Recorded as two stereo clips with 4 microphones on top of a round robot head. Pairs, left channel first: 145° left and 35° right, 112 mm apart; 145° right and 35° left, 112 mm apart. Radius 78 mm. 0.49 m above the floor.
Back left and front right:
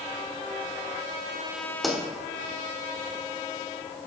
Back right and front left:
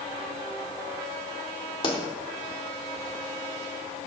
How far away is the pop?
About 1.9 m.